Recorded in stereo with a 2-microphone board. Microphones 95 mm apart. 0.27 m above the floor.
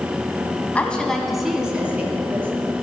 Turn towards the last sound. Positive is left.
turn(degrees=-20)  # may be behind; listen again after turning